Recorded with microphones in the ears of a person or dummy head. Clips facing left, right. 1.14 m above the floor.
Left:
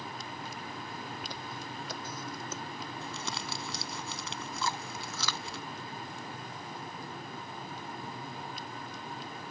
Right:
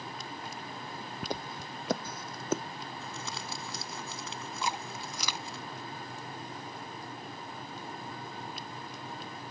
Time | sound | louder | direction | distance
1.2 | footsteps | right 4 dB | 40° right (ahead or behind) | ?
3.0 | crumpling | left 1 dB | 55° left (ahead or behind) | ?
4.6 | chewing | right 1 dB | 15° right (ahead or behind) | ?